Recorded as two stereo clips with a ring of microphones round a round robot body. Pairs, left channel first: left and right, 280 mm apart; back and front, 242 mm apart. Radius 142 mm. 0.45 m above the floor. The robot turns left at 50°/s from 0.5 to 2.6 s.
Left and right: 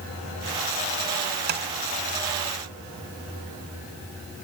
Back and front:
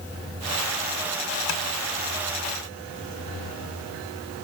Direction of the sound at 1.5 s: 145° right.